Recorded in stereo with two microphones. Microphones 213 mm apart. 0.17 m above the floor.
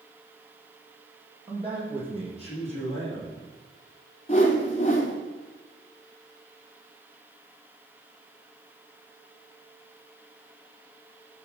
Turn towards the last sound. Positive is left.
turn(degrees=30)  # may be behind; listen again after turning